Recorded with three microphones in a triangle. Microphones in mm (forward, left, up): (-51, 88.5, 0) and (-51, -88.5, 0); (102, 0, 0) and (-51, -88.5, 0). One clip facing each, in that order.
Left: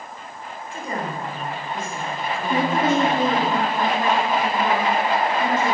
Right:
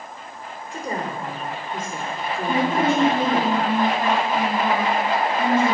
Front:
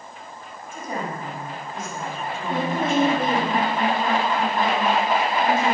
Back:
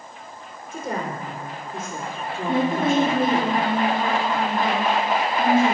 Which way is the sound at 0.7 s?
140° right.